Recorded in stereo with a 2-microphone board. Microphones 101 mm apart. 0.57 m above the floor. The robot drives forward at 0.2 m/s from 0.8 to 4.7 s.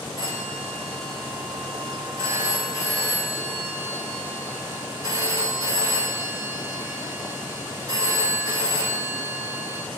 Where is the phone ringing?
40° right (ahead or behind), 3.5 m; by 9.8 s 35° right (ahead or behind), 4 m.